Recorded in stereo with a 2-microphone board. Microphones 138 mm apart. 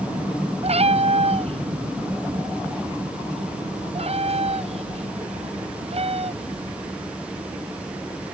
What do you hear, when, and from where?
0.6 s a cat meowing: 55° right (ahead or behind)